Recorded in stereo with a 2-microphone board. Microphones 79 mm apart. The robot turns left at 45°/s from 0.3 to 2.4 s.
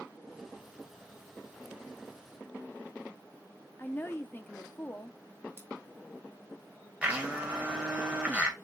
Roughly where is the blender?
Centre.